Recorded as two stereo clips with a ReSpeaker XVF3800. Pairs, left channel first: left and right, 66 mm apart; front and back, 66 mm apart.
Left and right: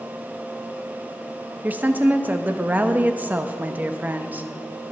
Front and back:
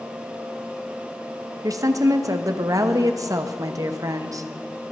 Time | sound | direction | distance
1.6 | a woman speaking | 150° right | 0.7 m